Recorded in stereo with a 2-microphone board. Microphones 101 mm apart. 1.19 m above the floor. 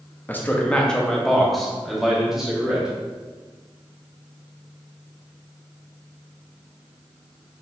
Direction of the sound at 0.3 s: 20° left (ahead or behind).